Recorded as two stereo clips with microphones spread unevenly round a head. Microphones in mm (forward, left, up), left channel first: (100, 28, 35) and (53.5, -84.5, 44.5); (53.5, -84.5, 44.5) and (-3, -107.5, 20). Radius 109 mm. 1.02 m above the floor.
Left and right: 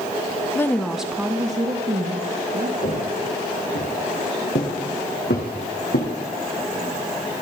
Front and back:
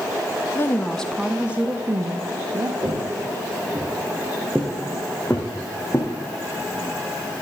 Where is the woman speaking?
85° left, 0.6 m; by 2.7 s 155° right, 1.2 m.